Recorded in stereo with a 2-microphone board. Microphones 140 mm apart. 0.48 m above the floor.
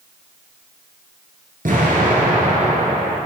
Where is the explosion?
85° right, 1.6 m.